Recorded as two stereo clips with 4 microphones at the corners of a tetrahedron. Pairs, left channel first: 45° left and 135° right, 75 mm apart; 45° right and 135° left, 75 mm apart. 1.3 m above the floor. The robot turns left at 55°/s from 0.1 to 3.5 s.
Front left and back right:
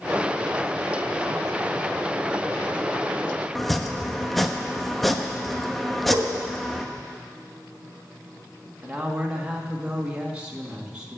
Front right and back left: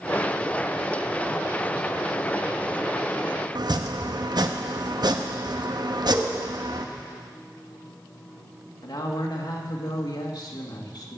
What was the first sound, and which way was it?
Chopping, 135° left.